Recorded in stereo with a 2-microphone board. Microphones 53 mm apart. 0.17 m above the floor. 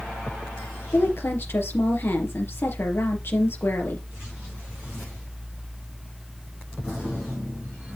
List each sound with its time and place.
0.9 s a woman speaking: 50° left (ahead or behind), 4 m